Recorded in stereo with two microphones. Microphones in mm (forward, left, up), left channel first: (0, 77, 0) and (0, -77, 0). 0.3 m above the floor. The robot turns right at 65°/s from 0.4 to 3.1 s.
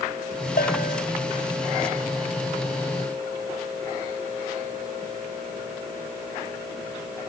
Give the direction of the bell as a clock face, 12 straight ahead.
9 o'clock.